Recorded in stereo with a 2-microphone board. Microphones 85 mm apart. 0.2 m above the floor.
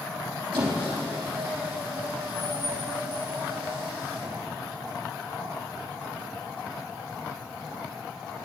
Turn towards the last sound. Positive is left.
turn(degrees=-65)  # may be behind; listen again after turning